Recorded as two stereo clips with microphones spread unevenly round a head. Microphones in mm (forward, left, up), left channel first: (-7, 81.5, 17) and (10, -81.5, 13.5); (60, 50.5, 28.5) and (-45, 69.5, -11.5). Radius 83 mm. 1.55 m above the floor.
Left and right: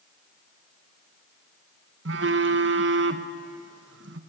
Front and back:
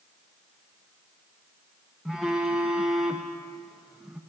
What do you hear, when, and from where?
2.0 s a phone buzzing: 90° right, 1.1 m